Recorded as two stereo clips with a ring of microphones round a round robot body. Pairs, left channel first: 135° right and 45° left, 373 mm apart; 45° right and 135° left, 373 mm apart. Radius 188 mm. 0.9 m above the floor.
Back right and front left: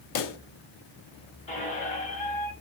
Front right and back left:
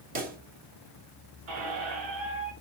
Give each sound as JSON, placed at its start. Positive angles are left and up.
{"t": 0.1, "sound": "a pop", "azimuth_deg": -160, "distance_m": 0.5}
{"t": 1.5, "sound": "a squeak", "azimuth_deg": 155, "distance_m": 1.5}